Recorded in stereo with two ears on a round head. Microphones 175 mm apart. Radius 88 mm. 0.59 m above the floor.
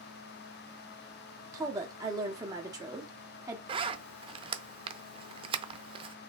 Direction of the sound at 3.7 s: 25° right (ahead or behind).